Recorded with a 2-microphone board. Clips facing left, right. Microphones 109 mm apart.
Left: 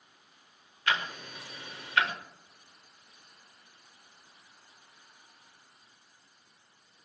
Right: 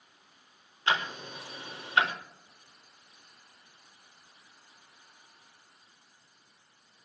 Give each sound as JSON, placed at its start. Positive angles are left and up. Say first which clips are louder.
{"t": 0.9, "sound": "ticking", "louder": "right 2 dB", "side_deg": -25, "distance_m": 1.5}